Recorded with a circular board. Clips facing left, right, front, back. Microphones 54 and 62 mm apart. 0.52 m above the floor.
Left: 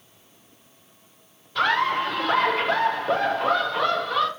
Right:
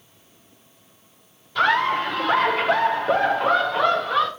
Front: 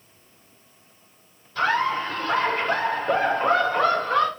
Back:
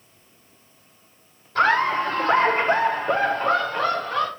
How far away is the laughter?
About 1.2 m.